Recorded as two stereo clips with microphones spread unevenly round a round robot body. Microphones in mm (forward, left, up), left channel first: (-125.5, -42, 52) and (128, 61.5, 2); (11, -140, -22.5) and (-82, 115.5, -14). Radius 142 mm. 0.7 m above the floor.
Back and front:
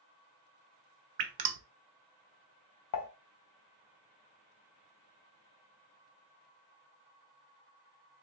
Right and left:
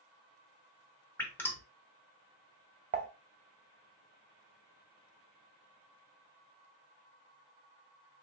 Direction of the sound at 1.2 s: 15° left.